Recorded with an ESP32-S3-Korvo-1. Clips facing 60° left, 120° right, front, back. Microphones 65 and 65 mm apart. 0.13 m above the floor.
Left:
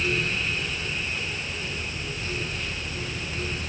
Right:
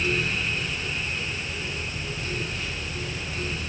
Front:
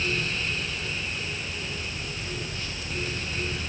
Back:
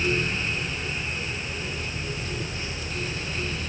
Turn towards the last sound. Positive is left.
No sound to turn to.